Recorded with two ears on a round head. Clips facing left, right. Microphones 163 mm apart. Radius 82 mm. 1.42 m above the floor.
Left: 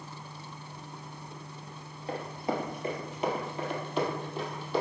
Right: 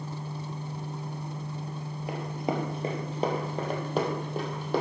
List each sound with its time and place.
2.1 s running footsteps: 10° right (ahead or behind), 2 m; by 4.8 s 45° right (ahead or behind), 3.5 m